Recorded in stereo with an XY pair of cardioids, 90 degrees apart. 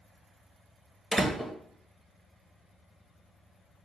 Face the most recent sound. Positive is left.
turn(degrees=-10)